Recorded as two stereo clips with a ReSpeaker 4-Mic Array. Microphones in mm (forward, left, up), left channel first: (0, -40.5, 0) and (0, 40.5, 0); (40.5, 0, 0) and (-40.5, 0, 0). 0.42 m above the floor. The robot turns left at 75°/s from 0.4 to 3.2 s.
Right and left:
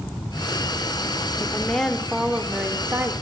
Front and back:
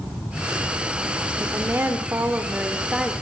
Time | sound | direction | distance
1.4 | a woman speaking | 130° right | 0.8 m